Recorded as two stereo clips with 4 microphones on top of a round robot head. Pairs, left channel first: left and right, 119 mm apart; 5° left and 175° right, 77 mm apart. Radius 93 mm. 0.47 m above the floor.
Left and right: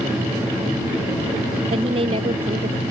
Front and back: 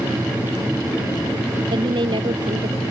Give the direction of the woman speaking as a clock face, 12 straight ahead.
5 o'clock.